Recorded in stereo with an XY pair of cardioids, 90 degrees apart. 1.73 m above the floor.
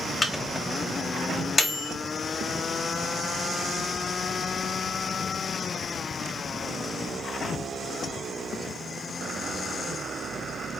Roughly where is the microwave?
Ahead.